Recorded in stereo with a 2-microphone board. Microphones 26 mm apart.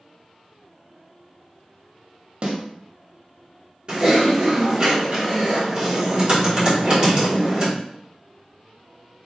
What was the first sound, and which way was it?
A snare drum, 40° right (ahead or behind).